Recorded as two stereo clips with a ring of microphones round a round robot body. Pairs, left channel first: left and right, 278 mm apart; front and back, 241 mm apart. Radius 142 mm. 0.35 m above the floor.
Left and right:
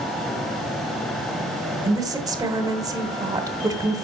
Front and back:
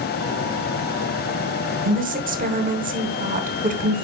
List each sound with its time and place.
1.9 s a woman speaking: 160° right, 1.0 m